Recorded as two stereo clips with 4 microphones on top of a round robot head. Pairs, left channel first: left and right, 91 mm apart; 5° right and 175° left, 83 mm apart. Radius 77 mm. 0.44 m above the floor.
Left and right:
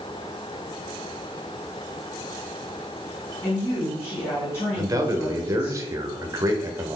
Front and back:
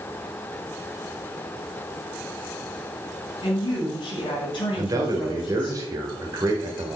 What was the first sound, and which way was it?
A woman speaking, 25° left.